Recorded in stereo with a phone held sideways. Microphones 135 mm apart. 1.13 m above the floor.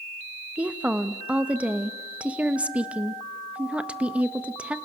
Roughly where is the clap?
No clap in this recording.